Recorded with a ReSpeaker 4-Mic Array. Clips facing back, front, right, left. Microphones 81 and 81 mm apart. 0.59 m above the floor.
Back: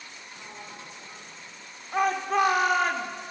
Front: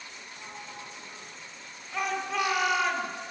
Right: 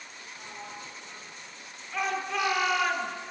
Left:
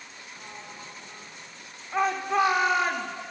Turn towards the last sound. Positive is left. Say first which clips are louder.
# back 6 dB, left 6 dB
turn(degrees=140)